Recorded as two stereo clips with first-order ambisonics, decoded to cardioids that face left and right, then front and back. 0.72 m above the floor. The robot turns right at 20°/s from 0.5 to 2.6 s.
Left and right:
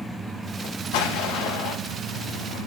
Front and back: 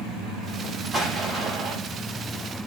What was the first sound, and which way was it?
An explosion, 95° left.